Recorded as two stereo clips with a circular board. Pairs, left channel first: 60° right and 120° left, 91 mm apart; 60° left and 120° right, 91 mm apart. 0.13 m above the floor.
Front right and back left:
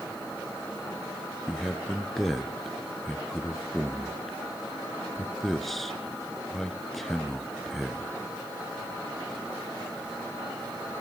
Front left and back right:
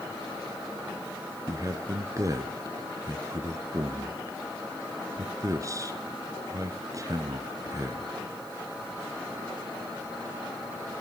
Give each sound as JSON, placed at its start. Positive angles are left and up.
{"t": 1.5, "sound": "a man speaking", "azimuth_deg": -145, "distance_m": 1.6}